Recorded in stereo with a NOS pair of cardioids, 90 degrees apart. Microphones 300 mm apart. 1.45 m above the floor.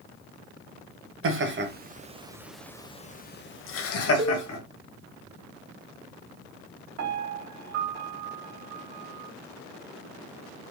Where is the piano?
65° right, 1.5 m.